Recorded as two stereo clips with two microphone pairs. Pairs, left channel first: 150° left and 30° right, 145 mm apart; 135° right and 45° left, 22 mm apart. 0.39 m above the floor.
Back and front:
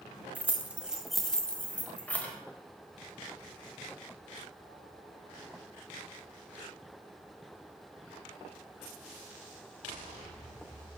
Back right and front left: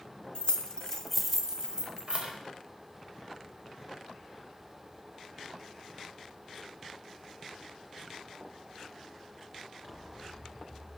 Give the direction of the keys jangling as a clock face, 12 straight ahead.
4 o'clock.